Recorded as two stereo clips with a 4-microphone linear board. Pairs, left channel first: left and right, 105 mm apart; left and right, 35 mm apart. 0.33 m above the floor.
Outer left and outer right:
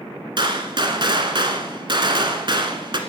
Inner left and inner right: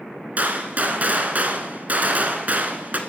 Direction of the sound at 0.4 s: 50° right (ahead or behind).